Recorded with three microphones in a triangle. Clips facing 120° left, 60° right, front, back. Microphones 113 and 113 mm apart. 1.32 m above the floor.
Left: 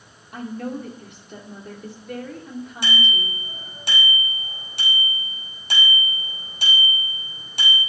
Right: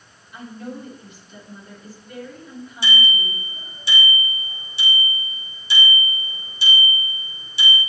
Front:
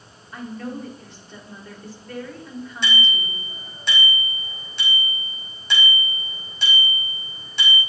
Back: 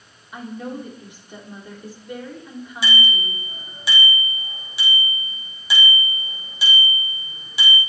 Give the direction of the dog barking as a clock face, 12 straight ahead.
I don't hear a dog barking.